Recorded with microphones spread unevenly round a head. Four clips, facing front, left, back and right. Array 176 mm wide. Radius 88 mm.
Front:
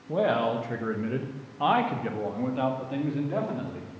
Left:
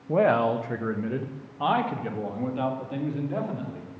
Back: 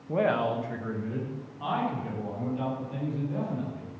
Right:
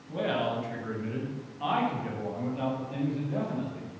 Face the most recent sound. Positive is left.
turn(degrees=20)